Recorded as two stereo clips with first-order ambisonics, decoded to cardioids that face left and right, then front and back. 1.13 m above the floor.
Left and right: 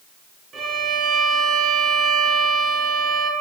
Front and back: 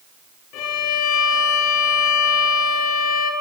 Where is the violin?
25° right, 3.5 m.